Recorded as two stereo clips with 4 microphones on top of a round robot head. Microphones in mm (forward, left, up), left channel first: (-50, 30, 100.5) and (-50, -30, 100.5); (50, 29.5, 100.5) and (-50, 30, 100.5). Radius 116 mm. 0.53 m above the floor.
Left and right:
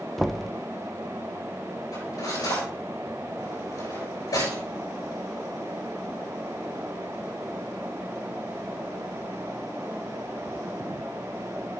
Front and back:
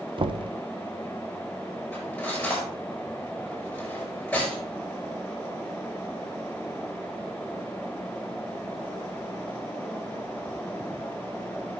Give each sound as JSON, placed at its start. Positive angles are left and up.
{"t": 0.2, "sound": "knocking", "azimuth_deg": 175, "distance_m": 0.8}
{"t": 1.9, "sound": "cutlery clinking", "azimuth_deg": 80, "distance_m": 7.0}